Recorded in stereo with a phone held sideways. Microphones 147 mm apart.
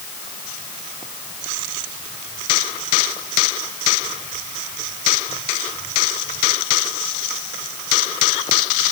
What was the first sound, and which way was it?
Only background noise.